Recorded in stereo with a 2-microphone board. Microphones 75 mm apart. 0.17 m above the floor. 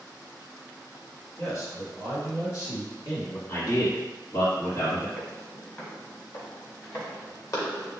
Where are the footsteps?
20° left (ahead or behind), 2.5 m; by 8.0 s 40° left (ahead or behind), 3.5 m.